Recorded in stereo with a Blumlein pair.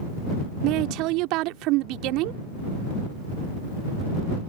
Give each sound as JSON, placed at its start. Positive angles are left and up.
{"t": 0.6, "sound": "a woman speaking", "azimuth_deg": -40}